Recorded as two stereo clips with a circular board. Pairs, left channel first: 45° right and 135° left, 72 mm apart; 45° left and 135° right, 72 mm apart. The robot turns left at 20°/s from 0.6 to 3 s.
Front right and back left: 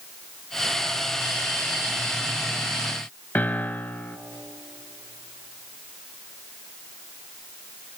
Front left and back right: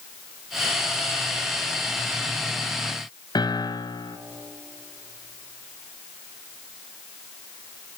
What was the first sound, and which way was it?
A piano, 25° left.